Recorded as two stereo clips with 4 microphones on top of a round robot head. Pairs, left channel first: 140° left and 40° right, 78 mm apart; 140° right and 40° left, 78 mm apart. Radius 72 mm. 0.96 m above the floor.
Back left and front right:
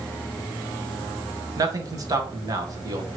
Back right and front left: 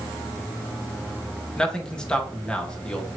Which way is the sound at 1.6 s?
65° right.